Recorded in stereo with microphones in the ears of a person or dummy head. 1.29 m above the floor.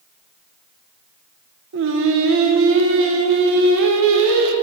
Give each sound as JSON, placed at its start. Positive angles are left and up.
{"t": 1.7, "sound": "singing", "side_deg": -65, "distance_m": 0.8}